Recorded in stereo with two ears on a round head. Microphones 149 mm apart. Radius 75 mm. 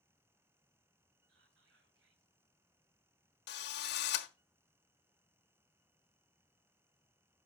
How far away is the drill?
About 1.2 m.